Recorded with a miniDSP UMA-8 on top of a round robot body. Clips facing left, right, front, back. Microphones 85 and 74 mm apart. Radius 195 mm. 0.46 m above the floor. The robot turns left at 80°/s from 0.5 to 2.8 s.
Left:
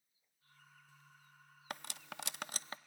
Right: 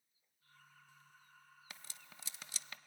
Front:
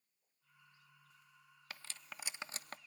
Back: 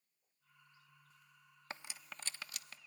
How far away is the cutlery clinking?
About 0.5 m.